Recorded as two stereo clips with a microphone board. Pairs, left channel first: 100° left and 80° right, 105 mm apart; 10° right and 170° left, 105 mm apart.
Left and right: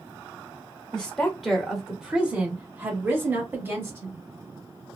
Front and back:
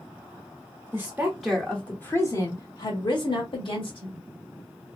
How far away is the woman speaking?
About 0.9 m.